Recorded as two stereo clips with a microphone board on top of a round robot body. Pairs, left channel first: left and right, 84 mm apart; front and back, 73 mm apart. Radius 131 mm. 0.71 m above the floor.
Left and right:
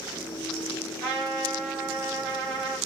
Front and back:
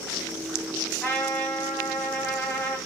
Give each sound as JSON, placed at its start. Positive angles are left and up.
{"t": 1.0, "sound": "a trumpet", "azimuth_deg": -75, "distance_m": 1.4}